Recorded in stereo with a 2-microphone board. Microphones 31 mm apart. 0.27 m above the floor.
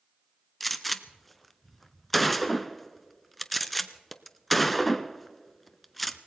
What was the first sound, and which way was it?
A gunshot, centre (ahead or behind).